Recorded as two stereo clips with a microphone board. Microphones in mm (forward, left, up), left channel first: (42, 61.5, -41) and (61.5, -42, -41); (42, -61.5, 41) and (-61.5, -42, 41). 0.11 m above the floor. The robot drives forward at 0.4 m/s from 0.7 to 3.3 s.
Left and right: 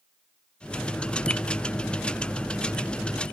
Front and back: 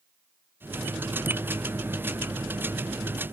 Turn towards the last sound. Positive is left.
No sound to turn to.